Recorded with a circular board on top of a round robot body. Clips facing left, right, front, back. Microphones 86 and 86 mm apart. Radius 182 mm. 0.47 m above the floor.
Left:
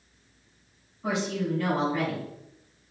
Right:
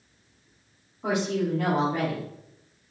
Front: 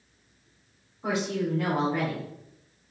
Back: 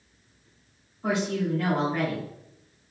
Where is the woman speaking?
65° right, 2 m.